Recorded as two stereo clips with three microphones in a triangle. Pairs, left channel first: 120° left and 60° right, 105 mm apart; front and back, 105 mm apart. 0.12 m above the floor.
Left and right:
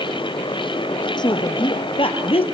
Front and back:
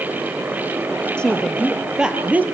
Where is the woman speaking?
80° left, 3 m; by 2.4 s 110° left, 3 m.